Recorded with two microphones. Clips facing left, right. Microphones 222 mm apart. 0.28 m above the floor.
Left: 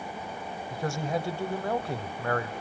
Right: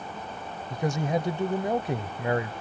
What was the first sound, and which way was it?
A man speaking, 20° right (ahead or behind).